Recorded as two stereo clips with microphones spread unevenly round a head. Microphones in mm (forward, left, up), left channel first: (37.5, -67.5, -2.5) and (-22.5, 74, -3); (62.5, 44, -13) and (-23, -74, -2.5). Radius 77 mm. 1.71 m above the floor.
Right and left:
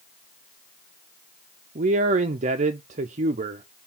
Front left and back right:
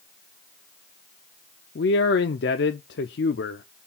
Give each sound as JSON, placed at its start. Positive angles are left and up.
{"t": 1.8, "sound": "a man speaking", "azimuth_deg": 70, "distance_m": 0.5}